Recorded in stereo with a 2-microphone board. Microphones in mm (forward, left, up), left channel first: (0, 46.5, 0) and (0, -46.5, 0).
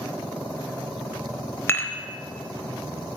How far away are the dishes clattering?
About 0.7 m.